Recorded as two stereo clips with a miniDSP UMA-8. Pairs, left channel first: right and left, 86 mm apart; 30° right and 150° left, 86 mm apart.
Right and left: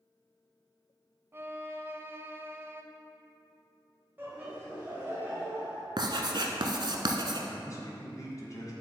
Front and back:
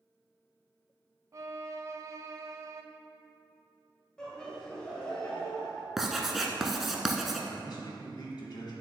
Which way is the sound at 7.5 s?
45° right.